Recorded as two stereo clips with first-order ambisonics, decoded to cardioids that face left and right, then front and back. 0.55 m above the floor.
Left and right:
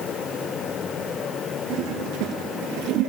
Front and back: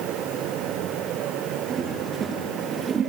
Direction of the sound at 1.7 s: 110° right.